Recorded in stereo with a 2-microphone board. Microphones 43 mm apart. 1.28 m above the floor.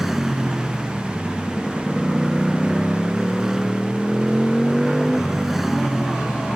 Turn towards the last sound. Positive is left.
turn(degrees=-5)  # may be behind; listen again after turning